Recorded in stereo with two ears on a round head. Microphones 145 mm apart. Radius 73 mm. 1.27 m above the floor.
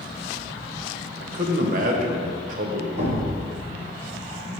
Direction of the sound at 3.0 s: 65° right (ahead or behind).